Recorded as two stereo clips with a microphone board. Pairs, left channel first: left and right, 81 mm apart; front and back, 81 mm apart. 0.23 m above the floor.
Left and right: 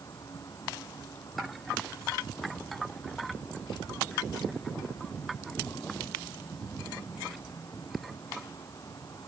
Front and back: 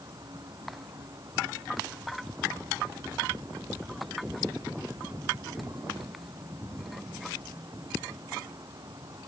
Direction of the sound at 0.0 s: 140° left.